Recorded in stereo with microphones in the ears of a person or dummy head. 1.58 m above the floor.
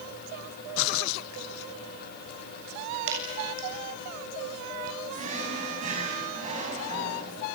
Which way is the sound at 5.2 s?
45° right (ahead or behind).